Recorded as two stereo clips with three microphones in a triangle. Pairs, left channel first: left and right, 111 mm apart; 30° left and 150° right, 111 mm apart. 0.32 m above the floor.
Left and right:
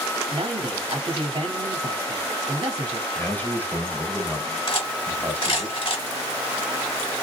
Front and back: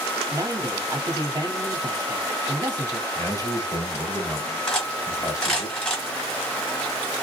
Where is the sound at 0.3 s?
105° right, 1.6 m.